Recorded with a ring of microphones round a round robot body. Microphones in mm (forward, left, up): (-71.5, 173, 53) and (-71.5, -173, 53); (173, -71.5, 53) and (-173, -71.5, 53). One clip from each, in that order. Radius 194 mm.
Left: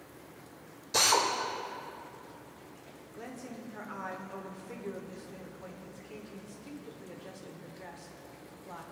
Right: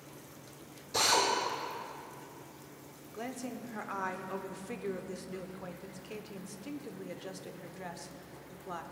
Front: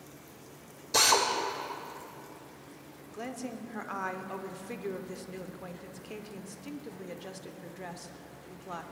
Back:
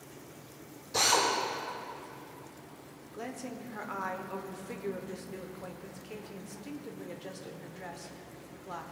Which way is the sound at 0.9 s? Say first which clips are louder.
Left 2 dB, front 2 dB; 35° left.